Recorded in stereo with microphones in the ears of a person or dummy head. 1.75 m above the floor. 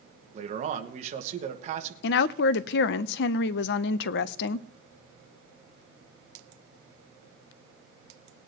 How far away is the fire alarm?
I don't hear a fire alarm.